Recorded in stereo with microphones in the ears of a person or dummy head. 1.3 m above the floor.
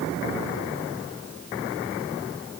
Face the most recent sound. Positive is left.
No sound to turn to.